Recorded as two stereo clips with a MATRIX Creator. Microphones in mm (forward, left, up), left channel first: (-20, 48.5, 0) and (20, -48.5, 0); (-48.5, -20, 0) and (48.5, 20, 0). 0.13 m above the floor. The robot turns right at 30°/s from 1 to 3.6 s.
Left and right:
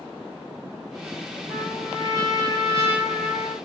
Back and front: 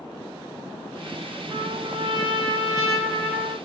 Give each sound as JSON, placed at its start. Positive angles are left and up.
{"t": 1.5, "sound": "a trumpet", "azimuth_deg": 45, "distance_m": 9.5}